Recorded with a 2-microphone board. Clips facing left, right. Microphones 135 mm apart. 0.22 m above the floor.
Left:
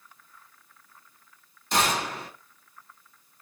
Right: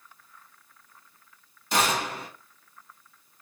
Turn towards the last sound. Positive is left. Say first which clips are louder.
# even
turn(degrees=-5)  # may be behind; listen again after turning